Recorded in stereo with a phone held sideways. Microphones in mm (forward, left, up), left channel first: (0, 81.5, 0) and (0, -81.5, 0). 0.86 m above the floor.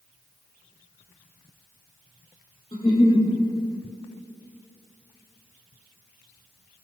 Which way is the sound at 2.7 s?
30° left (ahead or behind).